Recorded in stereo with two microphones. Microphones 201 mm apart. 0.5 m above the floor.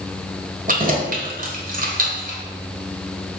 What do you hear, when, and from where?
0.7 s keys jangling: 45° right (ahead or behind), 1.3 m